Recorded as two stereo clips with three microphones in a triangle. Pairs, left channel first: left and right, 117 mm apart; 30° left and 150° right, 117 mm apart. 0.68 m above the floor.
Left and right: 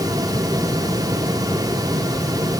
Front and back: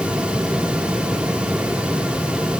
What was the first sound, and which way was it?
Only background noise.